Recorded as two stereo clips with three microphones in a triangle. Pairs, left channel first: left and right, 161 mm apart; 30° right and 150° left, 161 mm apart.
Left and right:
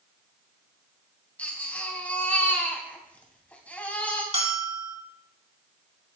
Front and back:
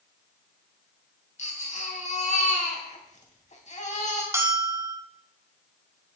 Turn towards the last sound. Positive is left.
turn(degrees=-140)